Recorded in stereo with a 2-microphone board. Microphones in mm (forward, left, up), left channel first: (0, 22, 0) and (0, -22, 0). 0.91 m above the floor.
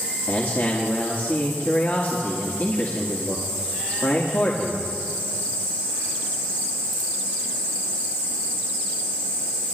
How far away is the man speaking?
About 1.8 m.